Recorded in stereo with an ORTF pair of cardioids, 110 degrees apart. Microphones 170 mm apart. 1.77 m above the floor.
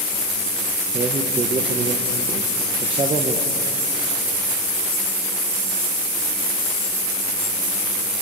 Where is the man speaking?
30° right, 1.6 m.